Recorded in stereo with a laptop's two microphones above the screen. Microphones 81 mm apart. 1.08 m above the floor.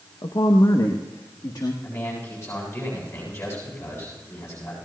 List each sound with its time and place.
0.2 s a woman speaking: 65° left (ahead or behind), 0.8 m; by 1.7 s 55° left (ahead or behind), 1.7 m
1.8 s a man speaking: 40° left (ahead or behind), 7 m